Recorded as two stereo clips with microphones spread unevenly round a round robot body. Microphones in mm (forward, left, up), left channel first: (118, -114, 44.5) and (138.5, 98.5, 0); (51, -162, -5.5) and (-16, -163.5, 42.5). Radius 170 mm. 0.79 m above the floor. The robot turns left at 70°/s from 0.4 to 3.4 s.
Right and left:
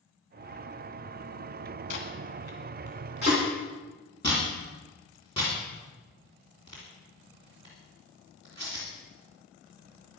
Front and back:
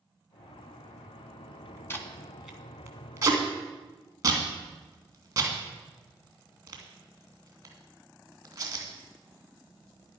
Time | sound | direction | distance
1.9 | tape being pulled | 65° right | 2.5 m